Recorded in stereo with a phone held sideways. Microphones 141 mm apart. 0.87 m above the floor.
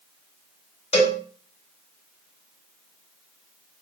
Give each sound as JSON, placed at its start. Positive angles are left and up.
{"t": 0.9, "sound": "a cowbell", "side_deg": 45, "distance_m": 0.7}